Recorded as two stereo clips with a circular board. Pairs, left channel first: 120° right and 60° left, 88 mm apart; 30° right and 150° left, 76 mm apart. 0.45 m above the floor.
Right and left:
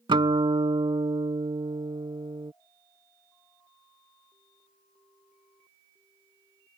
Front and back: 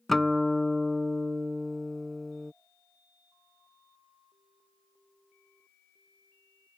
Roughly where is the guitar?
Ahead left.